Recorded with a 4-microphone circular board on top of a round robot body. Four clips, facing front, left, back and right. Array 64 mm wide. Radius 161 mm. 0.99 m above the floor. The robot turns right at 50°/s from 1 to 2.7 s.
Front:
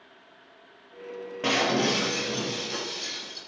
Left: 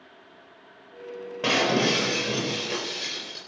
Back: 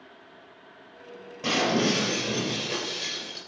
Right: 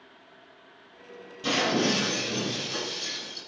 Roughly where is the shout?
No shout in this recording.